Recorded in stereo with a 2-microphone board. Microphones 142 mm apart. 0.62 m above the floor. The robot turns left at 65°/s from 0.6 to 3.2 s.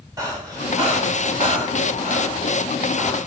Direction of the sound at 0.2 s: 25° right (ahead or behind).